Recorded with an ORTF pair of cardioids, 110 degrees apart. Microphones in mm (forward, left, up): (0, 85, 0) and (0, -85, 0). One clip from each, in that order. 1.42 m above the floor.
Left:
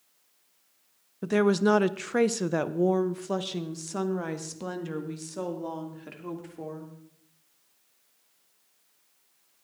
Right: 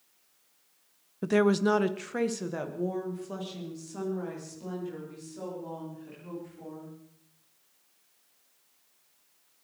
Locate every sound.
1.2 s a woman speaking: 5° right, 0.8 m; by 6.9 s 70° left, 4 m